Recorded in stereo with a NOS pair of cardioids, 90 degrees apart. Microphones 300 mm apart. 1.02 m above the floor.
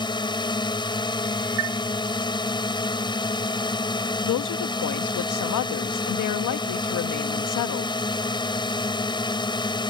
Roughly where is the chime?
Ahead right.